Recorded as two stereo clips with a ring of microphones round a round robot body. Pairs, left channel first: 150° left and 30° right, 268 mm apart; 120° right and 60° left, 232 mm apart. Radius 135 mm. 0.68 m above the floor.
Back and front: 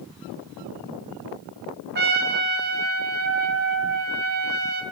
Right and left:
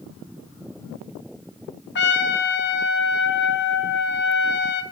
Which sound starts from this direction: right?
A trumpet, at 1.9 s.